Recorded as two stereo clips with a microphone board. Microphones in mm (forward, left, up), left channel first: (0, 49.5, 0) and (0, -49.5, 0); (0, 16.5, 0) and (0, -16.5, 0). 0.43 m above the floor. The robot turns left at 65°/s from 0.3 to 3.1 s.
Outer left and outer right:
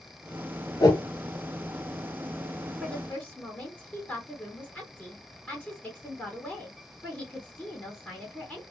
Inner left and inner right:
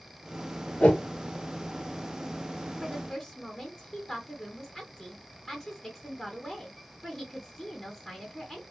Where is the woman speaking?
Centre (ahead or behind), 1.0 m; by 8.6 s 10° left (ahead or behind), 1.0 m.